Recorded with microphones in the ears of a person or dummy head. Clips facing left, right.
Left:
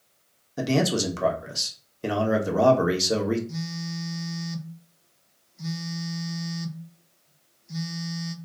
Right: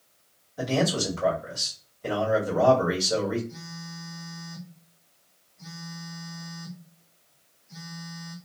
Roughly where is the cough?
I don't hear a cough.